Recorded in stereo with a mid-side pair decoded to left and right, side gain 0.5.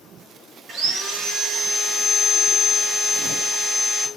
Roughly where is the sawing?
Ahead right.